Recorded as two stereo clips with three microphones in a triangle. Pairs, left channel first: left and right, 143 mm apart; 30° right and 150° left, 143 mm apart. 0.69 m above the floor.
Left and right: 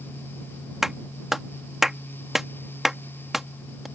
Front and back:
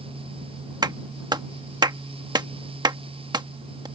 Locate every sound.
0.8 s a clap: 175° right